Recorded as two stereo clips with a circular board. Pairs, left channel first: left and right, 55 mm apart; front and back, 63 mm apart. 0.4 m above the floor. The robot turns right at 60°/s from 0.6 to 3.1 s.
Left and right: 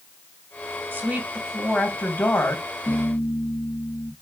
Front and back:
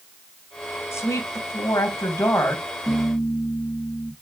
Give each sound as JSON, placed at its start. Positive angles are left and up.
{"t": 0.9, "sound": "a woman speaking", "azimuth_deg": -40, "distance_m": 2.5}
{"t": 2.9, "sound": "a piano", "azimuth_deg": 40, "distance_m": 3.0}